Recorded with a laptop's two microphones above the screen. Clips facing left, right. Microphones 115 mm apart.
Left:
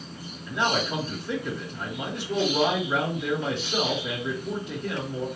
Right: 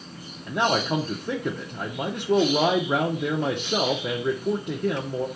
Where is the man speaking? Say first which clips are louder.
Right 3 dB; 55° right (ahead or behind), 0.9 m.